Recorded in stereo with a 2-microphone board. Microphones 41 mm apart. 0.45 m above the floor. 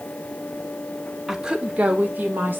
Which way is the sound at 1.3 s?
10° right (ahead or behind).